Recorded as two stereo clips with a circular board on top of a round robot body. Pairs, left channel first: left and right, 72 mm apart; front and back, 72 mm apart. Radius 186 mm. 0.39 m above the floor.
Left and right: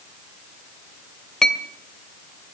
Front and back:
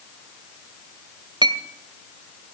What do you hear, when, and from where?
1.4 s a clink: 175° left, 2 m